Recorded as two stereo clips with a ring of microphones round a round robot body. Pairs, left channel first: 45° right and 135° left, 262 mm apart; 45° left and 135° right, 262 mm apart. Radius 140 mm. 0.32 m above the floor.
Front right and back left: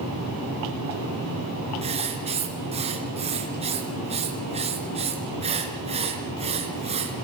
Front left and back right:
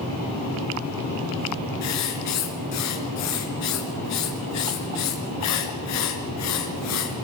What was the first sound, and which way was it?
Writing, 65° left.